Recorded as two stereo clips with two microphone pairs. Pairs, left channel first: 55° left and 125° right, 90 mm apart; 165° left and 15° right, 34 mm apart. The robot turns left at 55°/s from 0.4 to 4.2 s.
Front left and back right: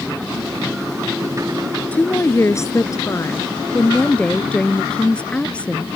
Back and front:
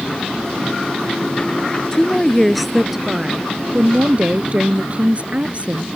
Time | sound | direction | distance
1.9 | a woman speaking | 115° left | ?